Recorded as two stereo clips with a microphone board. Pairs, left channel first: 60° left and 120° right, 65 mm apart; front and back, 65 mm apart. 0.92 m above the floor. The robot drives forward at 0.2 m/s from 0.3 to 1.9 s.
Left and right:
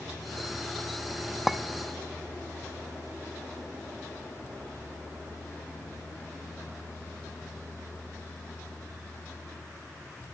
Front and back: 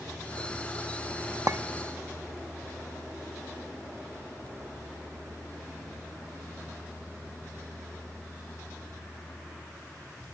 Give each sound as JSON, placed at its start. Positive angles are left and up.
{"t": 1.5, "sound": "a clink", "azimuth_deg": 155, "distance_m": 0.7}